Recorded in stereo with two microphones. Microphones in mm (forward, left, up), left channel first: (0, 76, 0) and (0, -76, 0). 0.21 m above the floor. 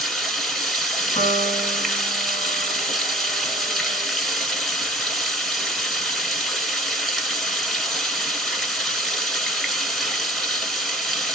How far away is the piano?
About 1.3 m.